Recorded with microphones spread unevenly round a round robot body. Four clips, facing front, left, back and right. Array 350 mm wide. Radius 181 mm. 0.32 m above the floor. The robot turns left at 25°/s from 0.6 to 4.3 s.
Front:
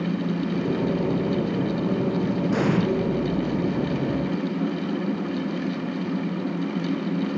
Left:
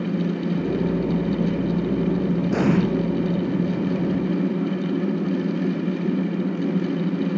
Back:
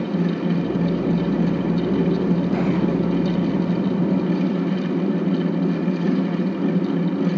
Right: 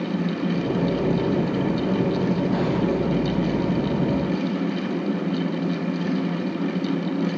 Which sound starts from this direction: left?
An explosion, at 2.5 s.